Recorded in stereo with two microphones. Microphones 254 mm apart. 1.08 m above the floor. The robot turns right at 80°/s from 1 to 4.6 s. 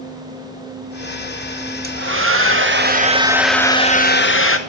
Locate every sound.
1.8 s a hair dryer: 130° right, 1.0 m; by 4.6 s 90° left, 1.0 m